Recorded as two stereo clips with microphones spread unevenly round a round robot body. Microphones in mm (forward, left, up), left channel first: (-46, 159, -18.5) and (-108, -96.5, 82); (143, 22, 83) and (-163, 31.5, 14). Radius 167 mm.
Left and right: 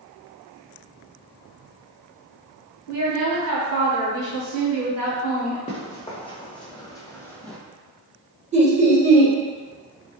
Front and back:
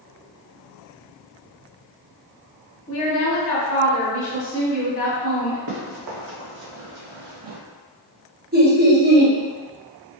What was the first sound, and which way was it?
A woman speaking, 70° right.